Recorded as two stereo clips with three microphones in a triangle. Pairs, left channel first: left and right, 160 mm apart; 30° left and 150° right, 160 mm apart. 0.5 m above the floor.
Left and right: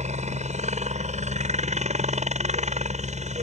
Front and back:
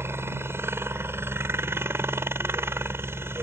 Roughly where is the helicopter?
Right.